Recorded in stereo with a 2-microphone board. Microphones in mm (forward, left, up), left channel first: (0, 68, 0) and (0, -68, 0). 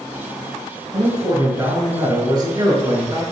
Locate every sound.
0.9 s a man speaking: 30° right (ahead or behind), 1.6 m